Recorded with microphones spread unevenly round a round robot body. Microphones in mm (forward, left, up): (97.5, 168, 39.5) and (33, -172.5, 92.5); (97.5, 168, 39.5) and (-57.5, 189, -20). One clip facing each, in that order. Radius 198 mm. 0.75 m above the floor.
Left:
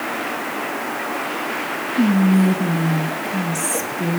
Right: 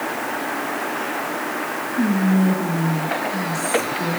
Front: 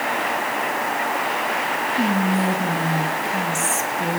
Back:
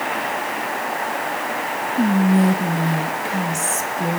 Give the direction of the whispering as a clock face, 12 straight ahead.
8 o'clock.